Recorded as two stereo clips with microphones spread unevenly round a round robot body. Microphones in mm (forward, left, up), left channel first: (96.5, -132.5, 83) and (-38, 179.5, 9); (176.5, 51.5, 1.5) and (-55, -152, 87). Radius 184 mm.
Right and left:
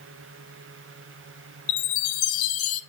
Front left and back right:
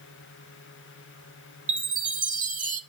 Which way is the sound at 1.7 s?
80° right.